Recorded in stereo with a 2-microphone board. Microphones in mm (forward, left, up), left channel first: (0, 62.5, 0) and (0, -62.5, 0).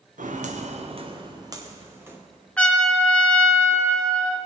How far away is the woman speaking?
I don't hear a woman speaking.